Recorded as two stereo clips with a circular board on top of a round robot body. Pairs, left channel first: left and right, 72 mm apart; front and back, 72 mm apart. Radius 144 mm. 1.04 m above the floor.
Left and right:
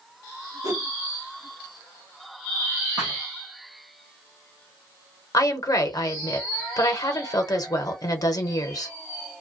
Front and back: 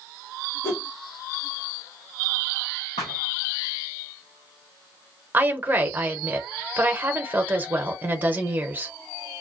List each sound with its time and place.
0.6 s a whoosh: 55° right, 1.1 m
3.0 s a thud: 20° right, 0.5 m
5.3 s a woman speaking: 120° left, 0.8 m